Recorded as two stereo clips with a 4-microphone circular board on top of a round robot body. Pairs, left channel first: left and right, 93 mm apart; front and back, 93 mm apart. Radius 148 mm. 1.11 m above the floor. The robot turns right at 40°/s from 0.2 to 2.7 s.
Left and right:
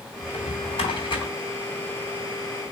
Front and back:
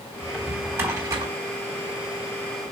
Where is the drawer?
90° left, 3.5 m; by 1.3 s 130° left, 3.5 m.